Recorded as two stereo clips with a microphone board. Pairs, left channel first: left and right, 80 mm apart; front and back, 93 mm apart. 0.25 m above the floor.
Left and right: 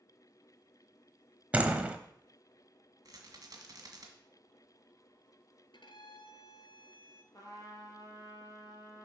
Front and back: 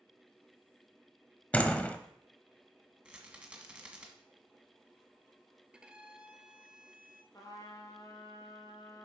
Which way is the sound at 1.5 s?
50° right.